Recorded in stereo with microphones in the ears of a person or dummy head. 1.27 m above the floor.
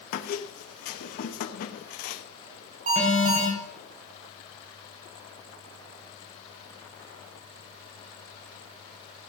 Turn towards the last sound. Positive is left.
turn(degrees=-40)  # may be behind; listen again after turning